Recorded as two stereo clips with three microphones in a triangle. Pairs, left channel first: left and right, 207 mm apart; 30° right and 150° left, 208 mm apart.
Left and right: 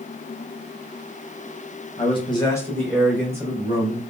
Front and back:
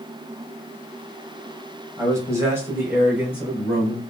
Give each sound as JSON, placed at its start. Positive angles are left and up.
{"t": 2.0, "sound": "a man speaking", "azimuth_deg": 90, "distance_m": 1.6}